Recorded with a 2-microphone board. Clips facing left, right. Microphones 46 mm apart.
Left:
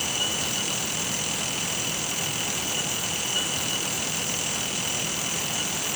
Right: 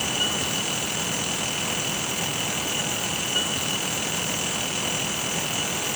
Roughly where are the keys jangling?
No keys jangling in this recording.